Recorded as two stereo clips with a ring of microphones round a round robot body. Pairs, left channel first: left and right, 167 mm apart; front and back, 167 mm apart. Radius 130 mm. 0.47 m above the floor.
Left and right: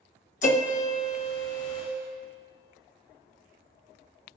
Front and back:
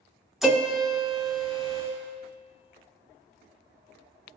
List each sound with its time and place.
0.4 s a piano: 95° left, 1.1 m